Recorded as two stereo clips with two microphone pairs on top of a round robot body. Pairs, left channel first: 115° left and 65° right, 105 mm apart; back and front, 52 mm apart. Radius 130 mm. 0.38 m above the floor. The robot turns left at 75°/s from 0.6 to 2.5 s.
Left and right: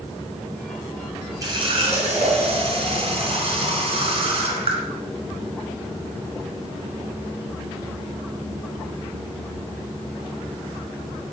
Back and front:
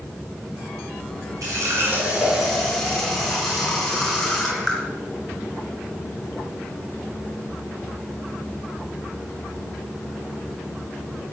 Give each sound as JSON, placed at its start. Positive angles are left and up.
{"t": 1.4, "sound": "a running tap", "azimuth_deg": -10, "distance_m": 3.5}